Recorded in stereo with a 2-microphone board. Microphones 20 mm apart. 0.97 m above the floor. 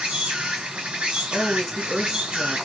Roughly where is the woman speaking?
Centre.